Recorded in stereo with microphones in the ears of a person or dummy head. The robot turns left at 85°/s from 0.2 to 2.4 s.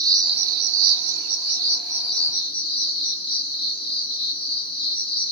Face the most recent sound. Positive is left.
turn(degrees=150)